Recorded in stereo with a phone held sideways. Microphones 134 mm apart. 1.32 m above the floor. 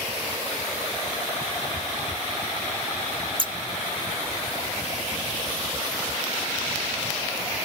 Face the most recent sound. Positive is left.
turn(degrees=-35)  # may be behind; listen again after turning